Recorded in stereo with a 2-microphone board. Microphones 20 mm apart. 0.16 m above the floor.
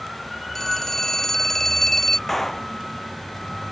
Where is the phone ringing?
20° left (ahead or behind).